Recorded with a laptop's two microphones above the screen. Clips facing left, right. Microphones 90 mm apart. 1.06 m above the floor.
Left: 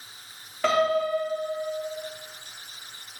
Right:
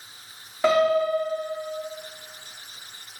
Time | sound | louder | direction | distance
0.6 | a piano | right 3 dB | 15° right (ahead or behind) | 2.5 m